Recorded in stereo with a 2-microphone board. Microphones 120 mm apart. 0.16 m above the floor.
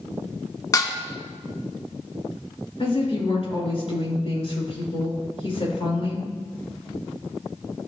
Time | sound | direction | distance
0.7 | dishes clattering | 30° left (ahead or behind) | 0.9 m
2.8 | a woman speaking | 55° left (ahead or behind) | 2.5 m